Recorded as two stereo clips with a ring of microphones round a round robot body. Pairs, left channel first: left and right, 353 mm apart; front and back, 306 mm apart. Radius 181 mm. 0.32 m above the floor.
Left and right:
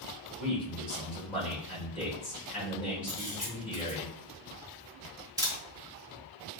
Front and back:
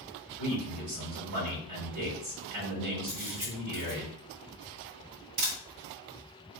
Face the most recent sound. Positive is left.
turn(degrees=-170)